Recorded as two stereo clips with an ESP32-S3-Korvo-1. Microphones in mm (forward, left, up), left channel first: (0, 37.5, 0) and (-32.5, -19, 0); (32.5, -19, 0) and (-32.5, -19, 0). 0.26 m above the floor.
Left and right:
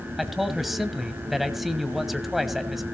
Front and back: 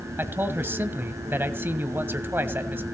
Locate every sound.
0.2 s a man speaking: 155° left, 1.6 m